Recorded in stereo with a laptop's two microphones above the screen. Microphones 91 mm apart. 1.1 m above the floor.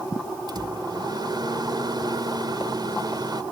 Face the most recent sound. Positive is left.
turn(degrees=-50)  # may be behind; listen again after turning